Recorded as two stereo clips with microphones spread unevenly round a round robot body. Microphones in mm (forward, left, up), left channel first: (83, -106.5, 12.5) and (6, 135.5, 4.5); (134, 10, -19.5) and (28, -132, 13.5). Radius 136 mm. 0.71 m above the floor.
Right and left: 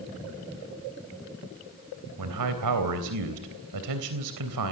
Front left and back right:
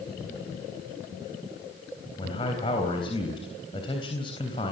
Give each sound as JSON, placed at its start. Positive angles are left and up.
{"t": 2.2, "sound": "a man speaking", "azimuth_deg": 125, "distance_m": 3.5}